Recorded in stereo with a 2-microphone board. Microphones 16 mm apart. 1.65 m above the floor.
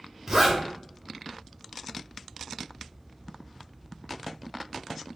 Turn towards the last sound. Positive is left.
turn(degrees=-15)  # may be behind; listen again after turning